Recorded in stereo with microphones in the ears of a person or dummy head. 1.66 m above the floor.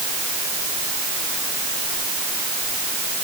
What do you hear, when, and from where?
Only background noise.